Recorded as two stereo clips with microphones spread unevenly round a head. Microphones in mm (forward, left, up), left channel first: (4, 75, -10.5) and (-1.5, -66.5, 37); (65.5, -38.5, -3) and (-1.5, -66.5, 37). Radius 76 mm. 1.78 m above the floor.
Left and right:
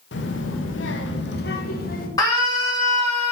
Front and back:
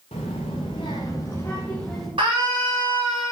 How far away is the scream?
About 5 m.